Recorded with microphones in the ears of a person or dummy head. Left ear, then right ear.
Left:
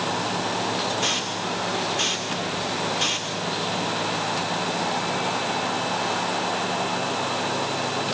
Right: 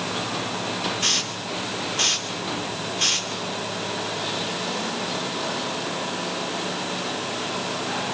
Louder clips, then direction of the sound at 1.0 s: Right 1 dB; 10° right (ahead or behind).